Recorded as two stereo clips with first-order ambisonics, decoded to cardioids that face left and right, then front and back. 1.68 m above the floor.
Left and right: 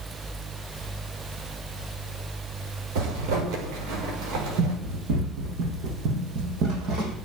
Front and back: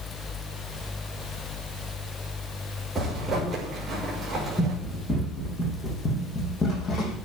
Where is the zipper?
95° right, 6.5 m.